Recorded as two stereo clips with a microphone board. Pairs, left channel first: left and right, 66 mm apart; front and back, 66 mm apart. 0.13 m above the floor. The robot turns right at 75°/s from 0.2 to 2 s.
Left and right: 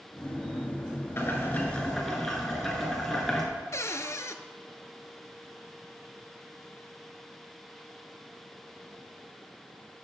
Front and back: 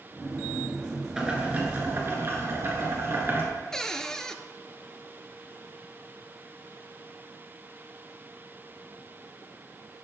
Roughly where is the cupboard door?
Left.